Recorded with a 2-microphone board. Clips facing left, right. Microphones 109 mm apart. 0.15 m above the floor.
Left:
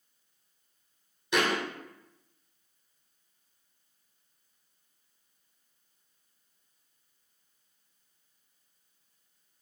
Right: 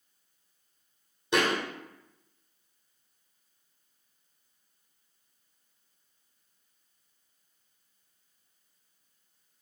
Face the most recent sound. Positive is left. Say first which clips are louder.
# right 1 dB
turn(degrees=-35)  # may be behind; listen again after turning